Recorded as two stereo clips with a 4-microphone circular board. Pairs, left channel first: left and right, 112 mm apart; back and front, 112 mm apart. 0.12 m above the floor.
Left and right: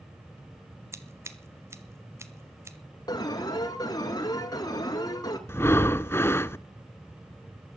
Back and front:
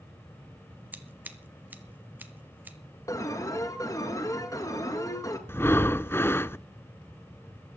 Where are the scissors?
55° right, 1.4 m.